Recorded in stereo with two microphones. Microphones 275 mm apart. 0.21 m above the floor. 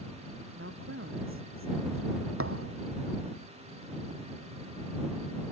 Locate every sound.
0.6 s a woman speaking: 50° right (ahead or behind)
2.4 s a thud: 55° right (ahead or behind)